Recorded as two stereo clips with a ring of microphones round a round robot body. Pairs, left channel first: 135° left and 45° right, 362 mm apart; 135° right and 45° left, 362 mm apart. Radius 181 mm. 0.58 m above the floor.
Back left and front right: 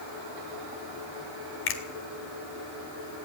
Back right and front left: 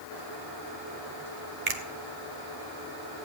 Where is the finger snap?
80° left, 1.9 m.